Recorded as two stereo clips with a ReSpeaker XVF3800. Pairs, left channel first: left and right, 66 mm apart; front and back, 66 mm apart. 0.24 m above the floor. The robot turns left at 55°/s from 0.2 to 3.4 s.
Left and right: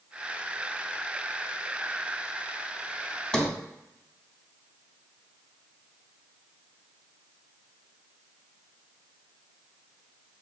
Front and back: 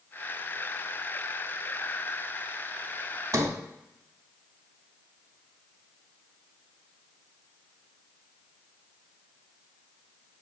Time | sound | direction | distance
3.3 | a sliding door | 165° left | 0.6 m